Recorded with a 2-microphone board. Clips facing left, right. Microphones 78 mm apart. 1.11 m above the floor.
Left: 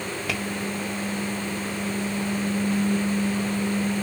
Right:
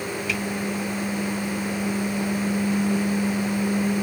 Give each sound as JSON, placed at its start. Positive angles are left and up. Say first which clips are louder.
{"t": 0.3, "sound": "tapping", "louder": "right 1 dB", "side_deg": 55, "distance_m": 1.6}